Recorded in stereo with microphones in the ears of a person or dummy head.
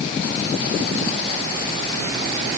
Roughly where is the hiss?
I don't hear a hiss.